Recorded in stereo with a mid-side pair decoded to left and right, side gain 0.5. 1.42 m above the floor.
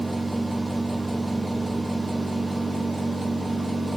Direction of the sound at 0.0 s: 15° right.